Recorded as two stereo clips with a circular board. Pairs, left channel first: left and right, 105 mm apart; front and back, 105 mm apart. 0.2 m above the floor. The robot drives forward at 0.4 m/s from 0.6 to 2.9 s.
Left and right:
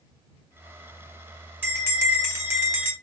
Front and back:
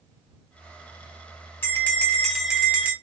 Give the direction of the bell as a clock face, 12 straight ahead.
2 o'clock.